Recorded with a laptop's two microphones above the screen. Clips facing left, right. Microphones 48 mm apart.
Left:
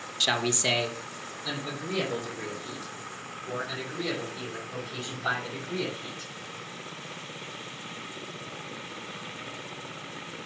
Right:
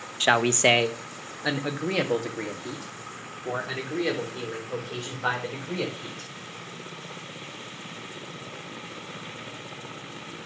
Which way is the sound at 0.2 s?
30° right (ahead or behind).